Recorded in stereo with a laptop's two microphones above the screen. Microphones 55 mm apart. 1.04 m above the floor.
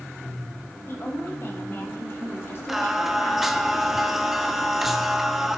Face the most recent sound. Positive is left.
turn(degrees=-5)  # may be behind; listen again after turning